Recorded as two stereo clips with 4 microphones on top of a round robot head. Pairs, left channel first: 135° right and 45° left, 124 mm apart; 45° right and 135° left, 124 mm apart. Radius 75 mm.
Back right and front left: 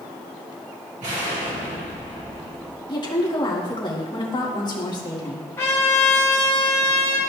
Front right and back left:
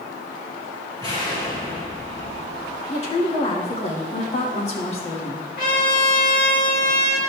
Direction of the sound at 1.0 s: 15° left.